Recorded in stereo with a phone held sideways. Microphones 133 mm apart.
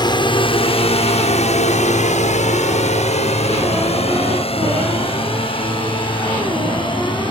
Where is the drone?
35° left (ahead or behind).